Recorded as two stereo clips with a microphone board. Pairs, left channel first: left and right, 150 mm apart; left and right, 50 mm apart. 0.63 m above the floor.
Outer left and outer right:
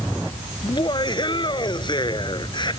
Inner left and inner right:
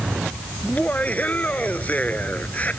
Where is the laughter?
30° left (ahead or behind).